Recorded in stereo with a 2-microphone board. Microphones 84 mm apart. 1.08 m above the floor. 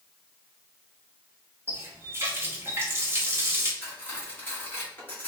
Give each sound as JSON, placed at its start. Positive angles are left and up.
{"t": 1.7, "sound": "a running tap", "side_deg": -30, "distance_m": 0.8}
{"t": 3.8, "sound": "cutlery clinking", "side_deg": 20, "distance_m": 1.3}